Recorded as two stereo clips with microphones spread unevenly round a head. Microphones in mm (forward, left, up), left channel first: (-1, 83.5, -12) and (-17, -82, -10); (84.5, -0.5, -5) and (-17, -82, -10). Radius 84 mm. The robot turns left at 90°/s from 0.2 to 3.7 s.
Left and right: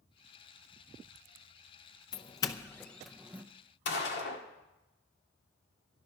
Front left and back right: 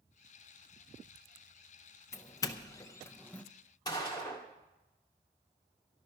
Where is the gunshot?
110° left, 1.7 m.